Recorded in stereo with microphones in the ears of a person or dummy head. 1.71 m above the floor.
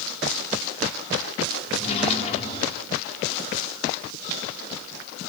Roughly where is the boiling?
No boiling in this recording.